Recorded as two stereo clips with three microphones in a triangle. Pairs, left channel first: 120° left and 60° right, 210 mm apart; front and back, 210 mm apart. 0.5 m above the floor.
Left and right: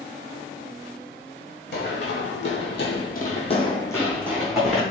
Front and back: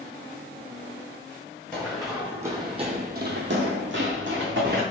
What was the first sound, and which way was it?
Running footsteps, 85° left.